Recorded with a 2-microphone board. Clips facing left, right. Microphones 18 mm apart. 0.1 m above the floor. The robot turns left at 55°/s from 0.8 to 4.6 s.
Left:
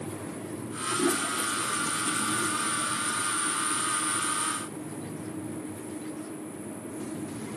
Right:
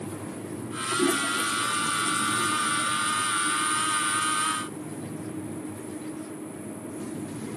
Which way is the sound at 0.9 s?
45° right (ahead or behind).